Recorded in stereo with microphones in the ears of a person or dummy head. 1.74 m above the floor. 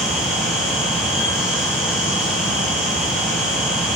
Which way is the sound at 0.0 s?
5° right (ahead or behind).